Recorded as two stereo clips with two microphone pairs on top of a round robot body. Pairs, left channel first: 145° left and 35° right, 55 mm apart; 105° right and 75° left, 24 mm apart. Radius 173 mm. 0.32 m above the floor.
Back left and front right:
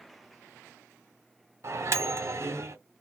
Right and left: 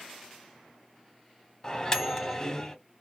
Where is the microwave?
45° right, 0.8 m.